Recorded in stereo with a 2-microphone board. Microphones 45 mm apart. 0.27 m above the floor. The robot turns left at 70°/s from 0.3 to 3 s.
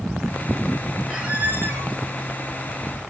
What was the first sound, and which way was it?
A squeak, 20° right.